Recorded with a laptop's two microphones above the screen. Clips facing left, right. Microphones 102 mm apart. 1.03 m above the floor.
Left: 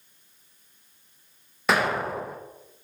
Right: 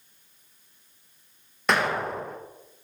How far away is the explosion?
About 1.1 m.